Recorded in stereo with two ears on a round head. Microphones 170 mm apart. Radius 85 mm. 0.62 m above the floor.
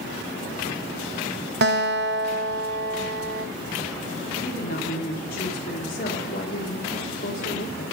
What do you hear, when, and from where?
1.6 s a guitar: 60° right (ahead or behind), 0.6 m
4.4 s a woman speaking: 50° left (ahead or behind), 1.7 m